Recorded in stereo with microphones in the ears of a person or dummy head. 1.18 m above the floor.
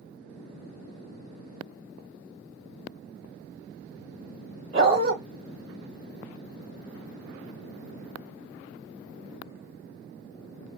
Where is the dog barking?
30° right (ahead or behind), 1.7 m.